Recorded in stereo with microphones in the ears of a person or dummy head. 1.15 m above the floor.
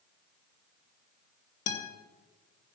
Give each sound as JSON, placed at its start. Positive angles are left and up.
{"t": 1.7, "sound": "a guitar", "side_deg": 50, "distance_m": 3.0}